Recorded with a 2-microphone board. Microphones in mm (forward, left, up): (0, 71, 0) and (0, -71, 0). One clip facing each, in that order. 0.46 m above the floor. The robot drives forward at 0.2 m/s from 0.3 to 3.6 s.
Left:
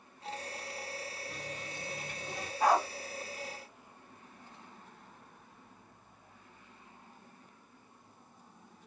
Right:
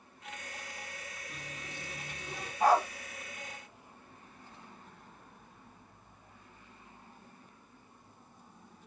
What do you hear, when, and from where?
1.3 s a running tap: 45° left (ahead or behind), 1.2 m; by 2.5 s 40° left (ahead or behind), 1.3 m
2.6 s a dog barking: centre (ahead or behind), 1.8 m